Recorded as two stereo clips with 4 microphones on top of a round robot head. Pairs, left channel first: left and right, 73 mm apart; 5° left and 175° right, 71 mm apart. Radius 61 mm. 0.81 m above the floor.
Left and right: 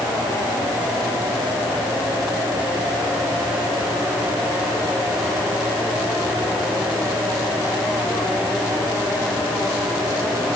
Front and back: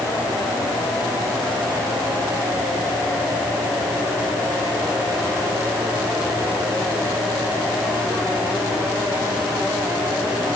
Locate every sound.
Only background noise.